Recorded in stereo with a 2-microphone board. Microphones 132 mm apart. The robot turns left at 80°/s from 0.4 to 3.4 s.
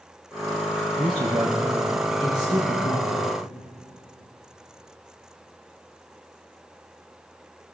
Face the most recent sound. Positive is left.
turn(degrees=35)